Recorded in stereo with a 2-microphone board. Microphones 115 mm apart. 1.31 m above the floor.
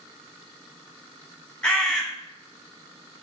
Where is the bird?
10° left (ahead or behind), 0.9 m.